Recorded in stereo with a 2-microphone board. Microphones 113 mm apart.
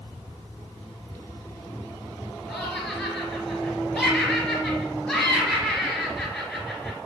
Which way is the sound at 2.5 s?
10° left (ahead or behind).